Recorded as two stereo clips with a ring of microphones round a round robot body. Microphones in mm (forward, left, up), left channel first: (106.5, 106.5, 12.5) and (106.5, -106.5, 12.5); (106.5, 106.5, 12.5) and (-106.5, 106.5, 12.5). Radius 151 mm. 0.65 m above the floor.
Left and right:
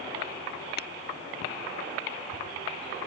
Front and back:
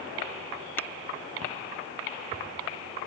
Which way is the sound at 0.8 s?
75° left.